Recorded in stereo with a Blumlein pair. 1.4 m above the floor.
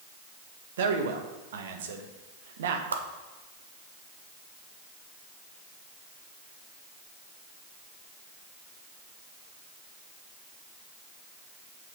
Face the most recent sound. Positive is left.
turn(degrees=-70)